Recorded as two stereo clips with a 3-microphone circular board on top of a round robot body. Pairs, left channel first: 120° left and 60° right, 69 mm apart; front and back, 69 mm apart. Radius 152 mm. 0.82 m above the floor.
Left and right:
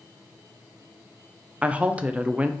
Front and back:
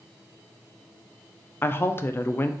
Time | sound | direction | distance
1.6 | a woman speaking | 5° right | 0.5 m